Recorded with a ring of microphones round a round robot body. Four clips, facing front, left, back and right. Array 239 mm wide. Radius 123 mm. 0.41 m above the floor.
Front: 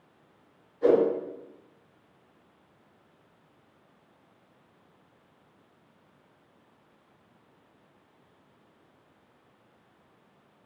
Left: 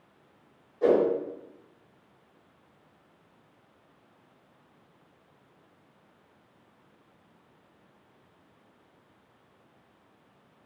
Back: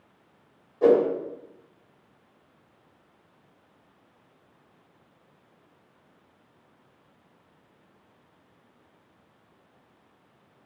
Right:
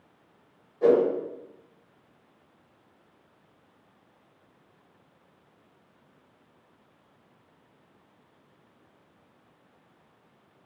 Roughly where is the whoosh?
Behind.